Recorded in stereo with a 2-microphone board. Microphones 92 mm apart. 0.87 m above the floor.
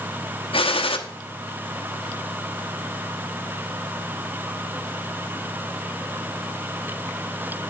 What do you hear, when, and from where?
0.5 s a gunshot: 80° left, 1.0 m